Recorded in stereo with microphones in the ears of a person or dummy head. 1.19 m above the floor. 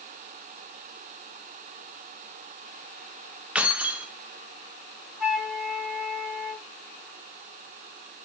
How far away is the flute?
About 1.7 m.